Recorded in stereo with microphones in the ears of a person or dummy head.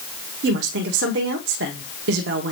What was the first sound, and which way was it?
A woman speaking, 75° right (ahead or behind).